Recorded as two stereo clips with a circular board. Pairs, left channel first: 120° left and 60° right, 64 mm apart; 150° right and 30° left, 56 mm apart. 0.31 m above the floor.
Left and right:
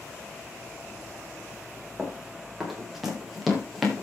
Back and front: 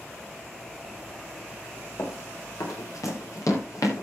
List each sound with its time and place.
2.0 s running footsteps: 140° right, 8 m; by 4.0 s 150° right, 7.5 m